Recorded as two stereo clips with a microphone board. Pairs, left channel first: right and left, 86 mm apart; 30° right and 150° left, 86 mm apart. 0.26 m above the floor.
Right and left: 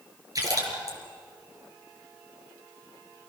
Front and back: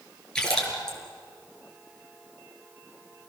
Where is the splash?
50° left, 5.5 m.